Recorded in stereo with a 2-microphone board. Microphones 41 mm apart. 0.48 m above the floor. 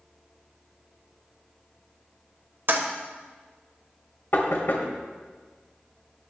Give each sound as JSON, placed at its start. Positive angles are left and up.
{"t": 2.7, "sound": "a toilet flushing", "side_deg": -60, "distance_m": 1.3}
{"t": 4.3, "sound": "knocking", "side_deg": 60, "distance_m": 1.9}